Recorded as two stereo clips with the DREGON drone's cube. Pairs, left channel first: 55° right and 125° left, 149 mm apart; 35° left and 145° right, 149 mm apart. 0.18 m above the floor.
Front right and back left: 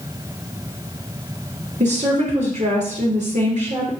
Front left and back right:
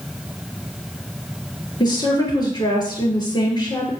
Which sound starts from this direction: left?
A woman speaking, at 1.8 s.